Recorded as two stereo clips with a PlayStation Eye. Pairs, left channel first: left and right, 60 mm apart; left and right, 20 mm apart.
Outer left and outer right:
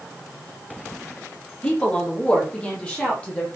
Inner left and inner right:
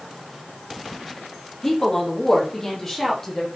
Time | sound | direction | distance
1.6 | a woman speaking | 15° left (ahead or behind) | 4.5 m